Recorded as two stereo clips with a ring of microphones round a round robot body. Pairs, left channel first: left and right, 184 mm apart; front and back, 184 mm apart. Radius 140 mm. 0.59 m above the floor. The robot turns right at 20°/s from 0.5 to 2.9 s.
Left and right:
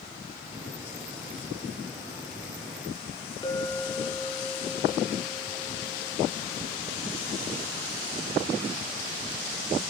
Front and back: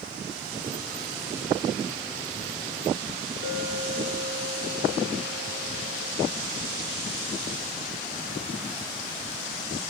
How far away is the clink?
About 5.5 m.